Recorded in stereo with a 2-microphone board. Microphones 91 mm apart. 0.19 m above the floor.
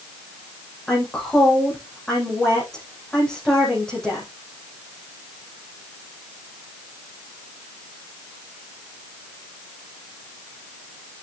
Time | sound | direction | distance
0.9 | a woman speaking | 5° left (ahead or behind) | 9.5 m